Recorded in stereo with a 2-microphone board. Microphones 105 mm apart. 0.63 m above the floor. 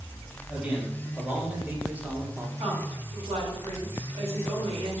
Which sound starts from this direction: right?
A woman speaking, at 2.6 s.